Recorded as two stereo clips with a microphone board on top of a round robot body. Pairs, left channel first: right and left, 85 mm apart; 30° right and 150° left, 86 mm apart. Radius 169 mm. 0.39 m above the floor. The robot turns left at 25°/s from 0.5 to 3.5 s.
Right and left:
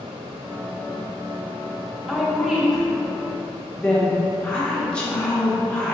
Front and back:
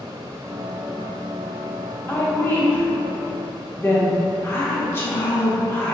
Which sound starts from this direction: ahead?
A woman speaking, at 2.1 s.